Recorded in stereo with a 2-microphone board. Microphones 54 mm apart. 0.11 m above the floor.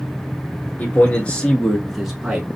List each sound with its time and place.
0.8 s a man speaking: 35° left (ahead or behind), 1.5 m; by 2.5 s 20° right (ahead or behind), 1.1 m